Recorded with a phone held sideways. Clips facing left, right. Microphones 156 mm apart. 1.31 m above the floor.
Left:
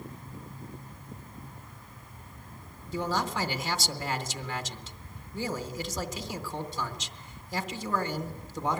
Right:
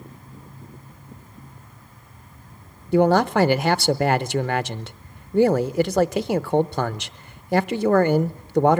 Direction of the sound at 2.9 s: 65° right (ahead or behind).